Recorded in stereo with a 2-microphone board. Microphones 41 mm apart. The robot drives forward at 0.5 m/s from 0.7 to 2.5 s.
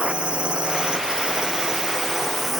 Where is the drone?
25° right (ahead or behind); by 2.6 s 10° right (ahead or behind).